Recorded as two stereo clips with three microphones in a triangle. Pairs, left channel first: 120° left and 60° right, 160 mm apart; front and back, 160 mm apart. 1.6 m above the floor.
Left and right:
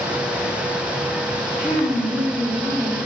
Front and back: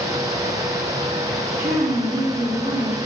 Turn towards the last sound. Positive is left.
turn(degrees=-160)